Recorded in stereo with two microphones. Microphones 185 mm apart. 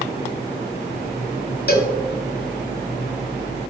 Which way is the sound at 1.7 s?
55° left (ahead or behind).